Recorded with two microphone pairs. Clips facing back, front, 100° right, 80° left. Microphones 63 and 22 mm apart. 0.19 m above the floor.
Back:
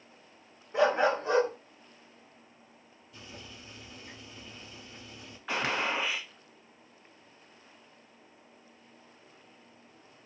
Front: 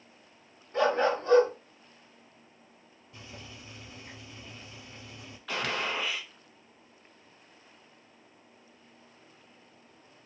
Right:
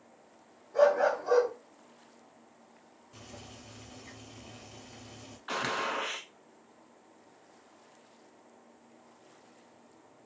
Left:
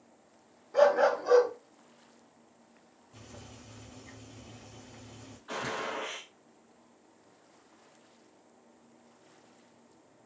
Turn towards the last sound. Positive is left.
turn(degrees=-120)